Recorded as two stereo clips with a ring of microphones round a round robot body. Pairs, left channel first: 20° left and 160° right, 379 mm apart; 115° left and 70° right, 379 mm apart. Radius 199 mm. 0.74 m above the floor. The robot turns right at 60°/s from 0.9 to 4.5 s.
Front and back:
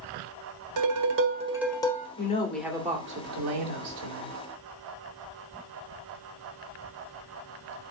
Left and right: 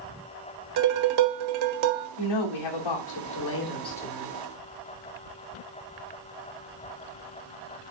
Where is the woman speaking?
85° left, 2 m; by 4.3 s 145° right, 2 m.